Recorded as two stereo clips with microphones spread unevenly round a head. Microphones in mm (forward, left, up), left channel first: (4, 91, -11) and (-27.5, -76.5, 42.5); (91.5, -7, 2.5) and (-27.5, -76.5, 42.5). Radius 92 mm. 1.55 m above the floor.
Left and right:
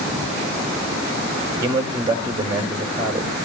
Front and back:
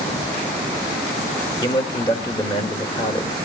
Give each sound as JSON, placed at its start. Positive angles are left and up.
{"t": 1.6, "sound": "a man speaking", "azimuth_deg": -25, "distance_m": 2.5}